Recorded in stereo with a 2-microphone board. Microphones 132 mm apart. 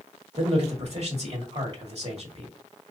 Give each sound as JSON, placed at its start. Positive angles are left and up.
{"t": 0.4, "sound": "a man speaking", "side_deg": -55, "distance_m": 1.4}